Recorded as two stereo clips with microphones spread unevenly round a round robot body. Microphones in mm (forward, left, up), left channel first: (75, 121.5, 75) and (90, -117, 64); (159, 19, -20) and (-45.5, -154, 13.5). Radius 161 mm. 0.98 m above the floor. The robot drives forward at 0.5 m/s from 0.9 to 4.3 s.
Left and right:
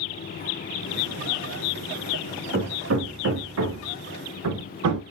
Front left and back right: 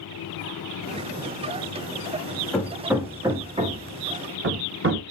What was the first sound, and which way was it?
Hammering, 45° right.